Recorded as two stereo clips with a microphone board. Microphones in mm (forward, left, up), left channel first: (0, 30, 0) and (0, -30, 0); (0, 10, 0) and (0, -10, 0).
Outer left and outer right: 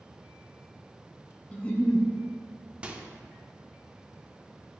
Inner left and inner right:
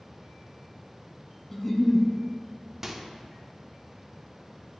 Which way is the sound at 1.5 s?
20° left (ahead or behind).